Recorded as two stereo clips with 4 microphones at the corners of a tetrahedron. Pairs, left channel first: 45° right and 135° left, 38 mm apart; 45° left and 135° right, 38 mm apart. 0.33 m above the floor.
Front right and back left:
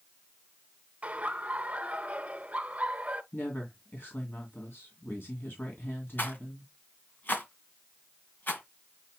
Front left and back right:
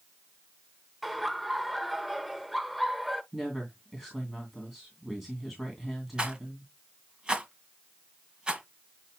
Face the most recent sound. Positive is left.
turn(degrees=-70)